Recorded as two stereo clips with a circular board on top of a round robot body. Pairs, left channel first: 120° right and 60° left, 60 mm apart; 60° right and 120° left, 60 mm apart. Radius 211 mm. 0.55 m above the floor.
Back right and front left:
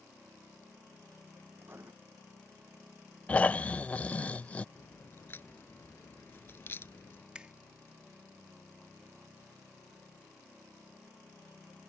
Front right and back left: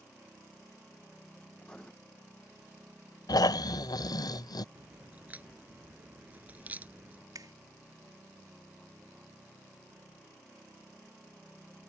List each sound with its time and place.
1.6 s writing: 15° left
3.3 s snoring: 50° right
4.8 s a crack: 175° right
7.3 s a finger snap: 135° left